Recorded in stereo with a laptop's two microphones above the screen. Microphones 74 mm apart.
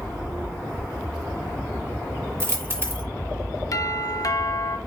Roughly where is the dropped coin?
Right.